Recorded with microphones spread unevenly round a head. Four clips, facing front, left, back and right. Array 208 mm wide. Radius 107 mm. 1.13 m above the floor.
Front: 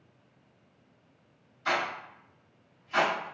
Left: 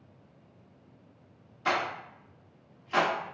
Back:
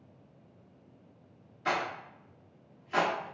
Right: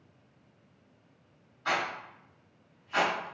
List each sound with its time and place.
1.6 s a rattle: 115° left, 1.1 m